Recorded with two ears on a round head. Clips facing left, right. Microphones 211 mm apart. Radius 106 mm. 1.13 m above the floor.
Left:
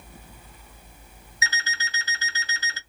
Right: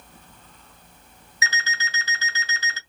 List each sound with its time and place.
1.4 s an alarm clock: 70° right (ahead or behind), 1.9 m